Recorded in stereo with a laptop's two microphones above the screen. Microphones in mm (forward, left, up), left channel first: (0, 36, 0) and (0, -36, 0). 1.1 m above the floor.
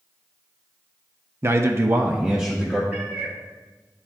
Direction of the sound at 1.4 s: 35° right (ahead or behind).